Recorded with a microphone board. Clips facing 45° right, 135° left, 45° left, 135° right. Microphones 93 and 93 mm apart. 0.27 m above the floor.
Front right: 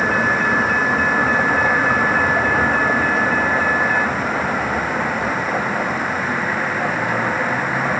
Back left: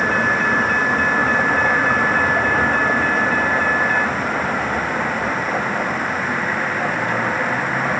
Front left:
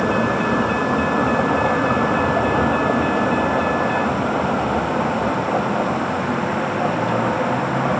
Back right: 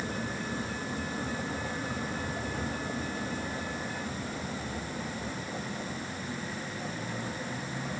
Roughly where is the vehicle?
Ahead left.